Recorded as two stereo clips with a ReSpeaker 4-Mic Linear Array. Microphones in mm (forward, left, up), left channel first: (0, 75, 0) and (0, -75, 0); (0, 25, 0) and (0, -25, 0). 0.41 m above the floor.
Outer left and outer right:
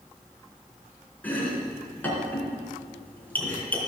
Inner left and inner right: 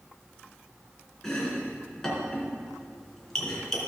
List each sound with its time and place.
1.2 s chopping: 10° left (ahead or behind), 3.5 m